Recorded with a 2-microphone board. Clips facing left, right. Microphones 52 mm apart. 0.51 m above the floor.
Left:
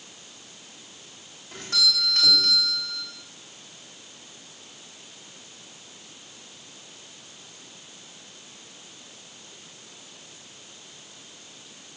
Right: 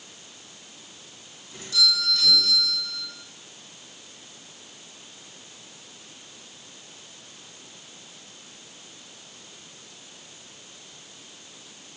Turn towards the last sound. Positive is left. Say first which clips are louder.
# right 1 dB
turn(degrees=55)  # may be behind; listen again after turning